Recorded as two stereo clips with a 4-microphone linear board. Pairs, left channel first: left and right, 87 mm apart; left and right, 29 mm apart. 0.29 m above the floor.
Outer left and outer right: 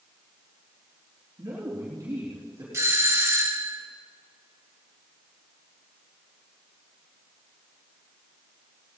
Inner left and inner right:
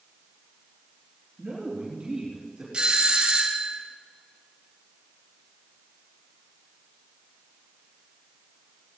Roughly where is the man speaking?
Right.